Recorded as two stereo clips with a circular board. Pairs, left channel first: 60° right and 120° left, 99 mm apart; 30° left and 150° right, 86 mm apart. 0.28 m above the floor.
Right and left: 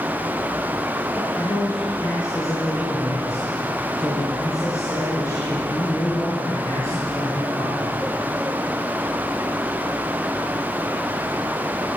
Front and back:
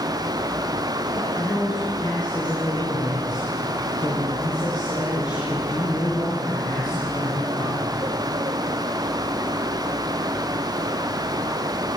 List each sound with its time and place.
1.1 s a man speaking: straight ahead, 5 m